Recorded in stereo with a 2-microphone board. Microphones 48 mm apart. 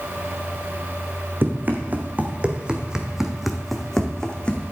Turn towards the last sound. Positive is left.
turn(degrees=20)  # may be behind; listen again after turning